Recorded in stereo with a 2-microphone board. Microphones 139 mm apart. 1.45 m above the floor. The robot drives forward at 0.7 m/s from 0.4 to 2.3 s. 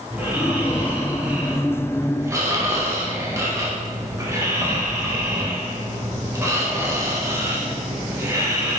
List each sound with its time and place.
0.1 s snoring: 10° right (ahead or behind), 3 m; by 8.8 s 20° right (ahead or behind), 1.8 m